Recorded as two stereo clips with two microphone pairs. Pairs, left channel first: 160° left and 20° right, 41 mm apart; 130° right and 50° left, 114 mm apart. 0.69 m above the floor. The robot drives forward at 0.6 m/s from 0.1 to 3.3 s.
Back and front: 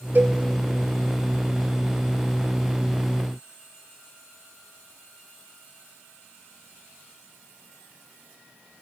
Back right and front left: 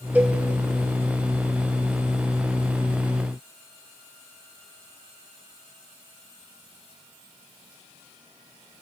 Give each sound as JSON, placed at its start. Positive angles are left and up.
{"t": 0.1, "sound": "a cowbell", "azimuth_deg": -20, "distance_m": 0.7}